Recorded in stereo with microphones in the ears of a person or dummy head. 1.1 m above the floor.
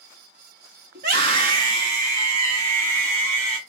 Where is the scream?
60° right (ahead or behind), 1.3 m; by 3.6 s 45° right (ahead or behind), 2.5 m.